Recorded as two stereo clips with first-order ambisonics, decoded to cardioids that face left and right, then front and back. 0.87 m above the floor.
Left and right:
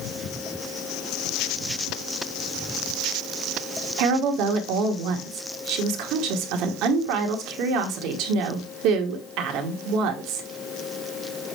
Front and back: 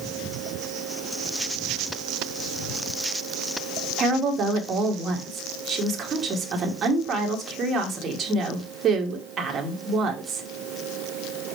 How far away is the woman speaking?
About 1.8 m.